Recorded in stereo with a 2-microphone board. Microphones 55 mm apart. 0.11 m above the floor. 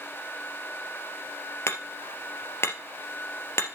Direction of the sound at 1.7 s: 55° left (ahead or behind).